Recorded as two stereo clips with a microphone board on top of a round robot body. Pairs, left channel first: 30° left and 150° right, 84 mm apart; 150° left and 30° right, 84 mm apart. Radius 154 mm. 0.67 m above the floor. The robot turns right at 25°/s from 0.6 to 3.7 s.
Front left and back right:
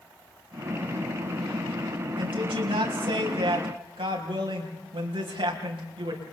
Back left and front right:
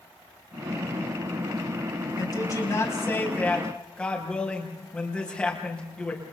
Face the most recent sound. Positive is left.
turn(degrees=-130)